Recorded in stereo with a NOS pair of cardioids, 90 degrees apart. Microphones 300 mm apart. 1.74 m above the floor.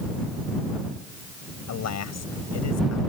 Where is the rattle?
I don't hear a rattle.